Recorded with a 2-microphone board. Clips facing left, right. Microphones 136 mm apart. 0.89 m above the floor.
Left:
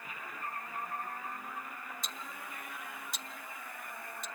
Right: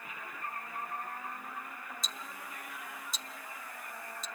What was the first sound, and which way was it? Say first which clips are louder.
Ticking: even; 60° left (ahead or behind).